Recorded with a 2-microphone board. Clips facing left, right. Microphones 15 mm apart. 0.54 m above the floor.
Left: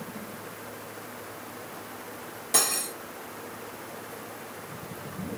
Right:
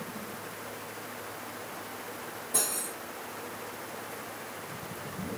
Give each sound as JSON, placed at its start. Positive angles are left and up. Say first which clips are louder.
{"t": 2.5, "sound": "cutlery clinking", "louder": "left 7 dB", "side_deg": 65, "distance_m": 1.3}